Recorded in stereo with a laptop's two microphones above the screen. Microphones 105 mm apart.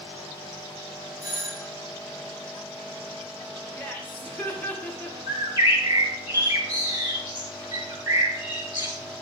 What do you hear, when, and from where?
1.2 s a doorbell: 30° right (ahead or behind), 3.5 m
3.8 s laughter: 15° left (ahead or behind), 1.1 m
5.3 s a bird: 45° right (ahead or behind), 3 m